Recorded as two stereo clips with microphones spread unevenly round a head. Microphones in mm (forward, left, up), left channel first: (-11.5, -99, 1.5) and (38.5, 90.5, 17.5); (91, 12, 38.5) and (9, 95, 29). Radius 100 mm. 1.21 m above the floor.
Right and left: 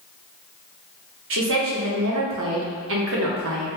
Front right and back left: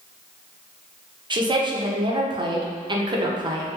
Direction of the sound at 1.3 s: 90° left.